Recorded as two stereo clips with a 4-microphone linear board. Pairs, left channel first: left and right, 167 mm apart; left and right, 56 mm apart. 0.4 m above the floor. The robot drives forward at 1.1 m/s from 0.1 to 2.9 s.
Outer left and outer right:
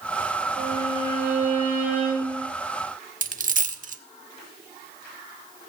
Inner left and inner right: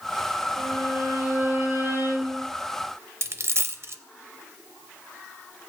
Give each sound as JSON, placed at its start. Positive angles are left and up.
{"t": 0.6, "sound": "a violin", "side_deg": -40, "distance_m": 8.0}
{"t": 3.2, "sound": "a dropped coin", "side_deg": -50, "distance_m": 0.6}